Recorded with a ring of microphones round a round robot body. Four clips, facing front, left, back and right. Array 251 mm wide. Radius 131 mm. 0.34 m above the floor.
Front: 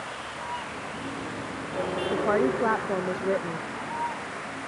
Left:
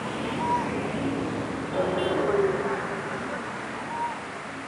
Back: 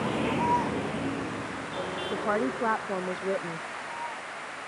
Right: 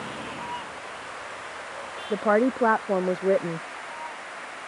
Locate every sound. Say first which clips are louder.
0.0 s a vehicle: left 6 dB, back 9 dB; 165° left; by 4.7 s 50° left
2.1 s a woman speaking: right 6 dB, front 4 dB; 80° right